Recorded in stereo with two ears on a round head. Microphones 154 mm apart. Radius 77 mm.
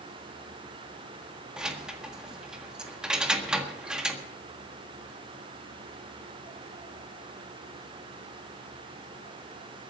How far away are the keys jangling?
About 1.6 m.